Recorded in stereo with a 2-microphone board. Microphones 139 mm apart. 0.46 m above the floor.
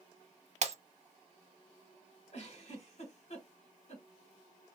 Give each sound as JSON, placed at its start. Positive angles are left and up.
{"t": 0.6, "sound": "breaking glass", "side_deg": -55, "distance_m": 0.6}
{"t": 2.3, "sound": "a giggle", "side_deg": 50, "distance_m": 1.5}